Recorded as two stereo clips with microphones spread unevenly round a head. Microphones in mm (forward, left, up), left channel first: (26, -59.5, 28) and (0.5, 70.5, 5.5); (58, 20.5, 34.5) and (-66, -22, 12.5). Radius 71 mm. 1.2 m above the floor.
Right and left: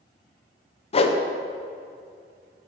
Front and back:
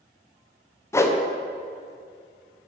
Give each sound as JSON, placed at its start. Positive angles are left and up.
{"t": 0.9, "sound": "a whoosh", "azimuth_deg": -50, "distance_m": 0.7}